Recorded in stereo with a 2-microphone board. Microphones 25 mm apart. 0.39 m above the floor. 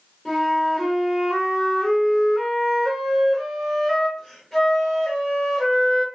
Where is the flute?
15° left (ahead or behind), 1.3 m.